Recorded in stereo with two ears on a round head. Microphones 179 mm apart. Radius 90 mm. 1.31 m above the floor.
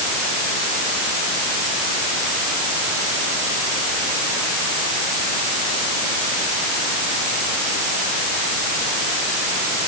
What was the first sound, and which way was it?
Only background noise.